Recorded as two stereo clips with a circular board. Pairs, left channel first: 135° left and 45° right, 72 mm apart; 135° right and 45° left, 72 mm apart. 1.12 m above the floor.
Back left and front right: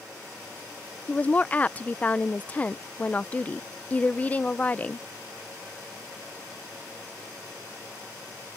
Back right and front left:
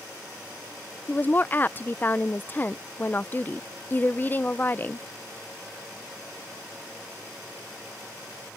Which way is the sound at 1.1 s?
175° right.